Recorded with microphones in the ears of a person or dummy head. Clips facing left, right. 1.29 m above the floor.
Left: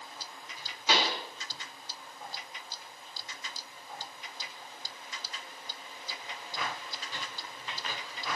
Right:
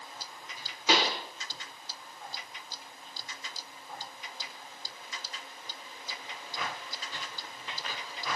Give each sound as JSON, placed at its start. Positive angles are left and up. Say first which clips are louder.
{"t": 0.9, "sound": "a pop", "louder": "right 2 dB", "side_deg": -70, "distance_m": 1.0}